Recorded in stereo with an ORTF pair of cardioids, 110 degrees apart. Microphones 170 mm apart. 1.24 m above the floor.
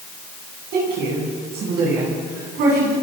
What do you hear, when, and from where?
0.7 s a woman speaking: 70° right, 10 m